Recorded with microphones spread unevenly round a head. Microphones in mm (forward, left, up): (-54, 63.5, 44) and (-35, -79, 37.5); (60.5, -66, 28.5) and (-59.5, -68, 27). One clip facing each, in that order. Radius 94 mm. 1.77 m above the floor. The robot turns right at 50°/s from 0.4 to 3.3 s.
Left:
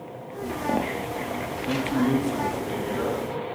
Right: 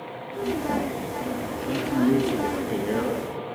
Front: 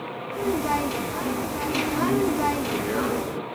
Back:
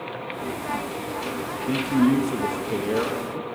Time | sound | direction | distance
1.7 | a man speaking | 175° right | 1.0 m